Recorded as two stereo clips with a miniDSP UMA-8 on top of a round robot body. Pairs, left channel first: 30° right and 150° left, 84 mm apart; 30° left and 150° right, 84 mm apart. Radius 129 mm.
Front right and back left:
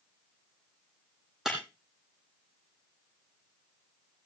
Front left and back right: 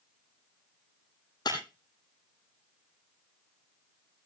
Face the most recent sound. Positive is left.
turn(degrees=65)